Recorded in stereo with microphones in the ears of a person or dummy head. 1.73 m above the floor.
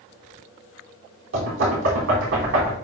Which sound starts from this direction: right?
Knocking, at 1.3 s.